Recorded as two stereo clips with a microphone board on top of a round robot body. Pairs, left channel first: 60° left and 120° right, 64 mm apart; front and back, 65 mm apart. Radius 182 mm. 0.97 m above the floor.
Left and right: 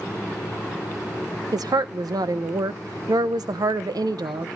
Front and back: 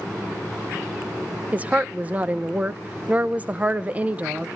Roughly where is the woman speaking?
Right.